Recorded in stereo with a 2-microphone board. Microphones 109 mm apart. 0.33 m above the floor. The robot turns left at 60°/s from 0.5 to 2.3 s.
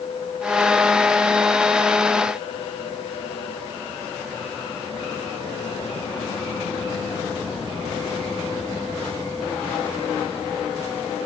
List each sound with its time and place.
Only background noise.